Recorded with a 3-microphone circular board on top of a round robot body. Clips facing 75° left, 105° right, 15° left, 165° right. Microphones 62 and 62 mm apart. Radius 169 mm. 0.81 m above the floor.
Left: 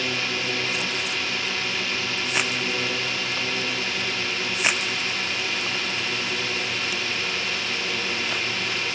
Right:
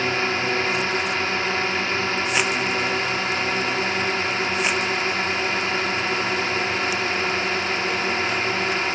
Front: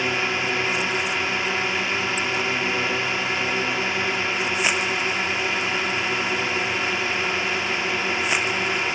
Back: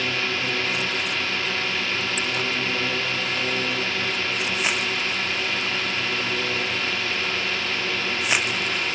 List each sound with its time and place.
0.0 s a drone: 55° right